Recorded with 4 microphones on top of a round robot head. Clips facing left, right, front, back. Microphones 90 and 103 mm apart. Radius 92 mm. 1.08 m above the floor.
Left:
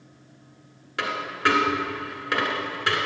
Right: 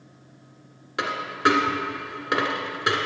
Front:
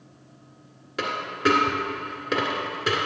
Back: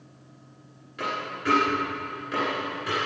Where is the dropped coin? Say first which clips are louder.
Right 2 dB, front 5 dB; 25° right, 1.6 m.